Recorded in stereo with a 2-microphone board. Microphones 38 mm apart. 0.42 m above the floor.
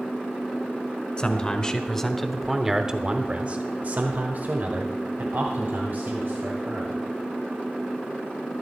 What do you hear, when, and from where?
1.2 s a man speaking: 25° left (ahead or behind), 1.3 m; by 7.1 s 55° right (ahead or behind), 2.5 m